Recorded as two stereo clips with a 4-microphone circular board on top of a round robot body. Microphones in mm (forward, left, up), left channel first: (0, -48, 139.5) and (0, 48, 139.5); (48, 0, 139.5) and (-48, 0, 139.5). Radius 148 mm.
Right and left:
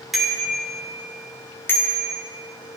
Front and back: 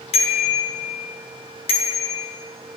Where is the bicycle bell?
Straight ahead, 2 m; by 2.2 s 30° right, 1.7 m.